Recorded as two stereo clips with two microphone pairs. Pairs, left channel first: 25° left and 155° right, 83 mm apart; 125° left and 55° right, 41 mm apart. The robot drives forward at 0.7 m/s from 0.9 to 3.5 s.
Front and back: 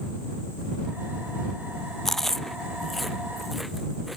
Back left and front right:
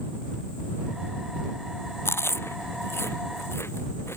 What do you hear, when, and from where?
2.0 s chewing: 110° left; by 4.2 s 115° left